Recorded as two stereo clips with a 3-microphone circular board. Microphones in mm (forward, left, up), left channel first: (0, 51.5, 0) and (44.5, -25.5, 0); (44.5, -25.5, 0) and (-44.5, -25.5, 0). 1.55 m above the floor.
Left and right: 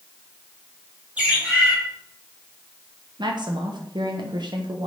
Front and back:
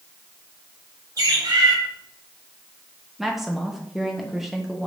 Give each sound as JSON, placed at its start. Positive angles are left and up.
{"t": 1.2, "sound": "a bird", "azimuth_deg": -135, "distance_m": 2.5}
{"t": 3.2, "sound": "a woman speaking", "azimuth_deg": -95, "distance_m": 1.2}